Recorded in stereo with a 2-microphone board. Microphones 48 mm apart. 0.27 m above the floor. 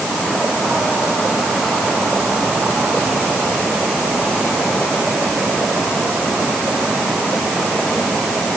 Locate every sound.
Only background noise.